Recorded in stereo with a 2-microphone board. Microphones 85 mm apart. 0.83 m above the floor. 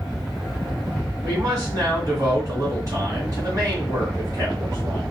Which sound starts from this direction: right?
A man speaking, at 1.2 s.